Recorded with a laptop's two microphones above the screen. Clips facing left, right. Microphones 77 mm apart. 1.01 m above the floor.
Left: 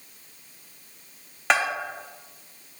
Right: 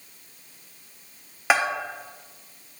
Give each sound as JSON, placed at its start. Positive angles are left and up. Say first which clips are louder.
{"t": 1.5, "sound": "a bell", "louder": "right 1 dB", "side_deg": -5, "distance_m": 0.6}